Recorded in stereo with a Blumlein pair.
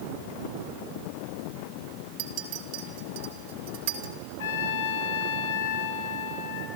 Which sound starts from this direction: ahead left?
A trumpet, at 4.4 s.